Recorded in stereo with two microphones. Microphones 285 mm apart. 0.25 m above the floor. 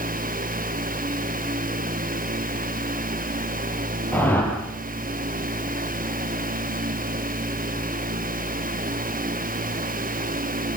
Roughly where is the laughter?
I don't hear laughter.